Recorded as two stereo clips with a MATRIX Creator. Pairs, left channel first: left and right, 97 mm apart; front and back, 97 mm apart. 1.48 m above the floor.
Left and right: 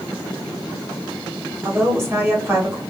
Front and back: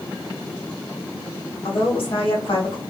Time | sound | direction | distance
1.6 | a woman speaking | 25° right | 1.2 m